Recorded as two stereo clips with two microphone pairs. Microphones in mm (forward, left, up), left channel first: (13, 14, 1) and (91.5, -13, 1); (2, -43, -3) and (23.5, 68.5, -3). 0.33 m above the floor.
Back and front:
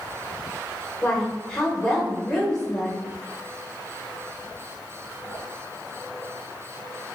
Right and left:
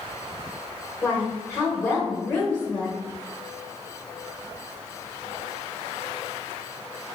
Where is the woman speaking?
120° right, 0.9 m.